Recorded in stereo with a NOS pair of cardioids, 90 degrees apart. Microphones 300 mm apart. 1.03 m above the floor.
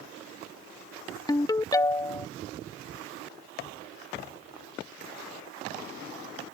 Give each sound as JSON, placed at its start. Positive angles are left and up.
{"t": 1.3, "sound": "a ringtone", "azimuth_deg": 15}